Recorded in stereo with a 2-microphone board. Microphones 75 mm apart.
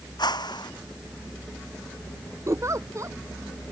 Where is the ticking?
I don't hear ticking.